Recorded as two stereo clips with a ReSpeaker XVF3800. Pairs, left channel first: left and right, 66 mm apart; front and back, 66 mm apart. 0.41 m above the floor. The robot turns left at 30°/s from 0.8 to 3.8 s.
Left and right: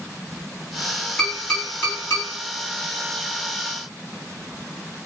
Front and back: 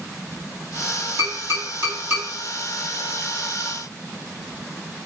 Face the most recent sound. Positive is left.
turn(degrees=90)